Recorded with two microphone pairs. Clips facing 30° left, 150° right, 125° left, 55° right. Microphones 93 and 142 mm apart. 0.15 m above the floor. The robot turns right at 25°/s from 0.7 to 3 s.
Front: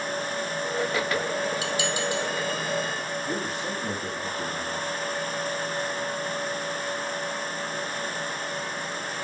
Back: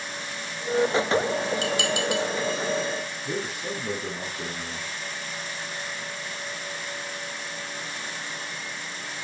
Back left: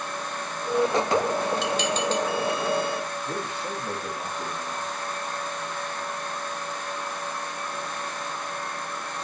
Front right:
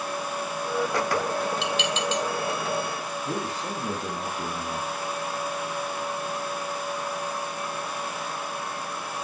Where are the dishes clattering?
175° left, 2.5 m; by 2.2 s 170° right, 2.5 m.